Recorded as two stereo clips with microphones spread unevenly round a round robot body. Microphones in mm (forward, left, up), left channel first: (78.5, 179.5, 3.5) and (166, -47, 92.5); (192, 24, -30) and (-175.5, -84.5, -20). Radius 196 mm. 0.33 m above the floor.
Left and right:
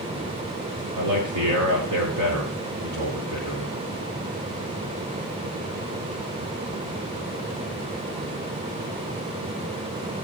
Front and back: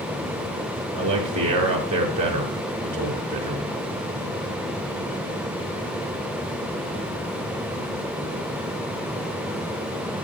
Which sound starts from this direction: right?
A man speaking, at 0.9 s.